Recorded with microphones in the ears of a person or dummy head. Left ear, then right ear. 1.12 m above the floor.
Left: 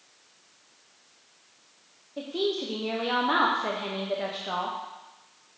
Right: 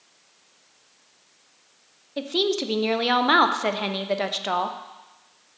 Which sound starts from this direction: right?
A woman speaking, at 2.2 s.